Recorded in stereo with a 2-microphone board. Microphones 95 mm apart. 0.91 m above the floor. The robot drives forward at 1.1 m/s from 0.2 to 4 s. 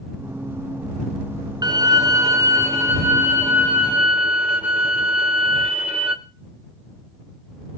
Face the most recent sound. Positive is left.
turn(degrees=-15)  # may be behind; listen again after turning